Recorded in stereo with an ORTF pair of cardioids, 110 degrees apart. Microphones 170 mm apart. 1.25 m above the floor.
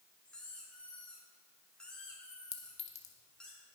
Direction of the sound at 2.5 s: 40° left.